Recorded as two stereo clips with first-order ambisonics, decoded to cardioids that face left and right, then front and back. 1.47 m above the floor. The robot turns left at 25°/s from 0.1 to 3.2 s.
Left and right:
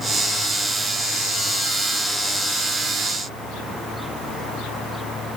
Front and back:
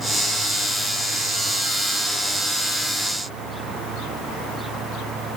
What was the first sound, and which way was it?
Only background noise.